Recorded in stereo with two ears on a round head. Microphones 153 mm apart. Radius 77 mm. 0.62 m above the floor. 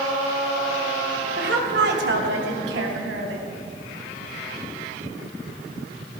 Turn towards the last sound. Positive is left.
turn(degrees=-85)